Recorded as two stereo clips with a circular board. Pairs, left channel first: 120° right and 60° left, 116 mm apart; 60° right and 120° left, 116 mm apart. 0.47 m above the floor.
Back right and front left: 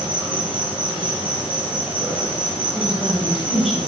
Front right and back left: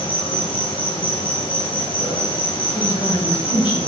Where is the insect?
20° right, 3 m.